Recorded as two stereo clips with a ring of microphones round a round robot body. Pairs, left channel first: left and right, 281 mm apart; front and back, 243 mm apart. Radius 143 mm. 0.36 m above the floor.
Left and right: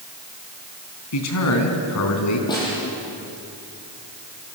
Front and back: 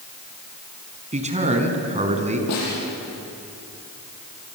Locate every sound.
1.1 s a man speaking: 120° left, 4 m
2.5 s a snare drum: 15° left, 9.5 m